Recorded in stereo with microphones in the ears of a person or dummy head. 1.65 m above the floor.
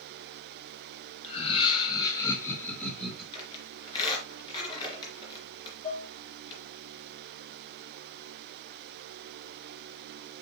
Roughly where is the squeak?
Left.